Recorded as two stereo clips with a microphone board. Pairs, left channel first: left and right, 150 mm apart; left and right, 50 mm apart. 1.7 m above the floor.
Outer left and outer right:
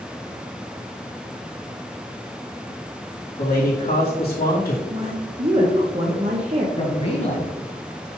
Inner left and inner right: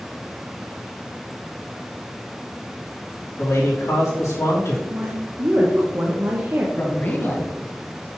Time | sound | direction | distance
3.4 | a man speaking | 80° left | 2.5 m
4.9 | a woman speaking | 40° right (ahead or behind) | 0.8 m
6.8 | a man speaking | 40° left (ahead or behind) | 1.6 m